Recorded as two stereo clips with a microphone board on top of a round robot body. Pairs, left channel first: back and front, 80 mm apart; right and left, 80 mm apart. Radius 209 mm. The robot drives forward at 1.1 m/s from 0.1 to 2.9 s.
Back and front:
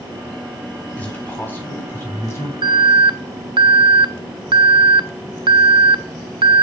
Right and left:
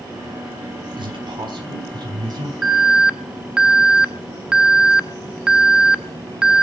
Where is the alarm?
5° left, 1.0 m; by 6.6 s 10° left, 0.7 m.